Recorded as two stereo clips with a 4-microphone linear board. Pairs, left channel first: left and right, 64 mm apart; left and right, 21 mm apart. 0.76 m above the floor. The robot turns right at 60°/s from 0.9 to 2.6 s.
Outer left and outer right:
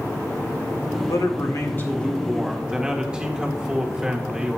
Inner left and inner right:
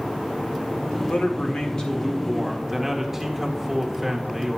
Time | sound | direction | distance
1.1 | a man speaking | 105° left | 2.0 m